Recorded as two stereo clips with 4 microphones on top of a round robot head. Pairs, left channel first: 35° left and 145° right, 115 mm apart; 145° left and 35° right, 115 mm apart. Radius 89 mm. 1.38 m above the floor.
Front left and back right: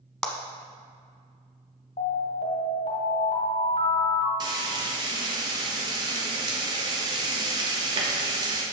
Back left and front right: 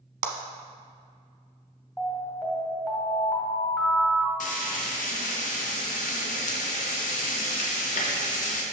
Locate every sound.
0.2 s a clap: 50° right, 0.9 m
2.0 s an alarm: 70° left, 1.6 m
4.4 s frying: 160° left, 0.9 m